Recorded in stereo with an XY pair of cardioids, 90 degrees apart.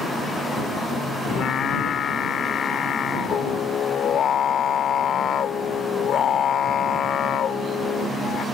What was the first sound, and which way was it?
Singing, 70° left.